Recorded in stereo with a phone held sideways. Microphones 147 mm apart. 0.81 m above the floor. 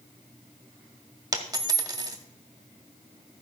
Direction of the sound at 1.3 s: 25° right (ahead or behind).